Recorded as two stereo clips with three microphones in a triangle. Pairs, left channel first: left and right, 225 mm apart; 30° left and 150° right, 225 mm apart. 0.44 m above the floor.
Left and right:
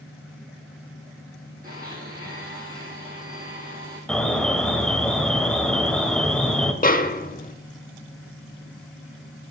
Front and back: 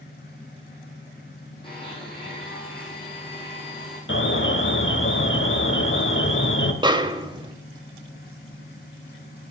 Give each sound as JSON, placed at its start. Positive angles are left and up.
{"t": 1.6, "sound": "a blender", "azimuth_deg": -40, "distance_m": 5.0}
{"t": 4.1, "sound": "an alarm", "azimuth_deg": 5, "distance_m": 1.1}
{"t": 6.8, "sound": "a snare drum", "azimuth_deg": 140, "distance_m": 0.7}